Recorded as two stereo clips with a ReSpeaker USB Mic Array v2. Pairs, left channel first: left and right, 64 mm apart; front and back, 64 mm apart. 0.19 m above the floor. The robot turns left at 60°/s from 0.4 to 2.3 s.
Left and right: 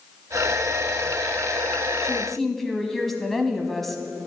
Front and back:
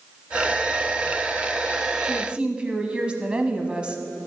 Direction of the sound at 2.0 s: 175° right.